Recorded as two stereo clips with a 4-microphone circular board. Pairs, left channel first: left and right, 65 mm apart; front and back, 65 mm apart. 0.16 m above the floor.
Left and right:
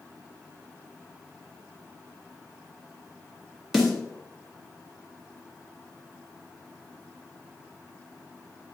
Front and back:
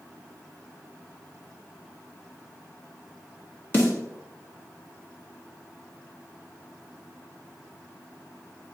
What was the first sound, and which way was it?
A snare drum, 5° right.